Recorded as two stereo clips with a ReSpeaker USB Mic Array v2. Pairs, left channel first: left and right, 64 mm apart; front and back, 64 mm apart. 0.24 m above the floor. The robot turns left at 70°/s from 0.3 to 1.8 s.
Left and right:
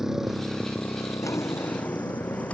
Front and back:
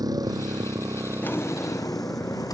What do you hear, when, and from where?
0.0 s a motorcycle: 175° right; by 2.5 s 80° left
1.2 s a drawer: 65° left; by 2.5 s 20° left